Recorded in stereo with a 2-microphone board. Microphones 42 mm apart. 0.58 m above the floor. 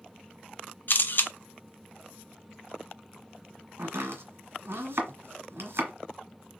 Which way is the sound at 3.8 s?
65° right (ahead or behind).